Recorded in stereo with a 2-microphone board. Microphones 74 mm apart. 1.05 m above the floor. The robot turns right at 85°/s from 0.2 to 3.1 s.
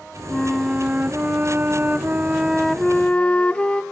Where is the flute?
10° left (ahead or behind), 0.5 m; by 3.8 s 15° left (ahead or behind), 0.5 m.